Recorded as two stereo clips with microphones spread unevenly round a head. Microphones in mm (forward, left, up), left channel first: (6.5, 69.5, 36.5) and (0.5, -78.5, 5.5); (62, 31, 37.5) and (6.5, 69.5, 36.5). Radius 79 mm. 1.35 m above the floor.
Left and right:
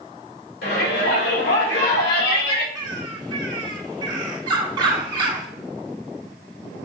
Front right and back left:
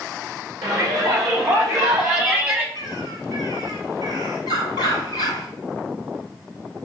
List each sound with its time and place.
0.6 s a shout: 110° left, 3.5 m; by 2.6 s 85° left, 2 m
2.8 s a bird: 155° right, 1.9 m